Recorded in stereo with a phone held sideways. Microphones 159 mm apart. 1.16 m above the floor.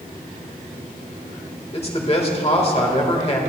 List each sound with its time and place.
1.7 s a man speaking: 40° left (ahead or behind), 1.4 m